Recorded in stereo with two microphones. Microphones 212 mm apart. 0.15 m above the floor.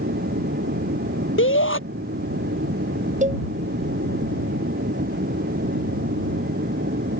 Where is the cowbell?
35° right (ahead or behind).